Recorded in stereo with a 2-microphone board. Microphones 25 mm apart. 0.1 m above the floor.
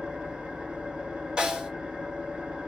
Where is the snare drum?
35° right (ahead or behind), 1.7 m.